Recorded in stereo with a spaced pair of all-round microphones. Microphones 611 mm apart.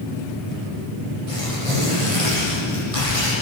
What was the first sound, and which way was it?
Tearing paper, 60° right (ahead or behind).